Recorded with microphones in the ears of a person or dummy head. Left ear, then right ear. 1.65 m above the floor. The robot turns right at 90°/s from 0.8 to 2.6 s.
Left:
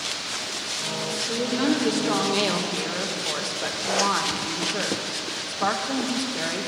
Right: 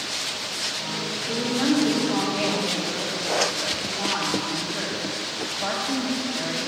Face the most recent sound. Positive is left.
turn(degrees=85)